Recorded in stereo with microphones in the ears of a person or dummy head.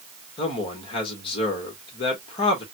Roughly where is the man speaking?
Left.